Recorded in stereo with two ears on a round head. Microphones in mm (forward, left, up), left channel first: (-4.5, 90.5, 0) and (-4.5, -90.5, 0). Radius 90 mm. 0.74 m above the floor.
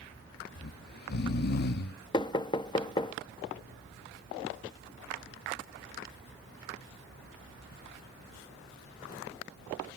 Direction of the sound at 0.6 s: 50° left (ahead or behind).